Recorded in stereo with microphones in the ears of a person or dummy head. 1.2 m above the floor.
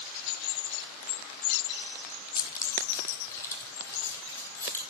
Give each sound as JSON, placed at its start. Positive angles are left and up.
{"t": 2.4, "sound": "keys jangling", "side_deg": 20, "distance_m": 0.8}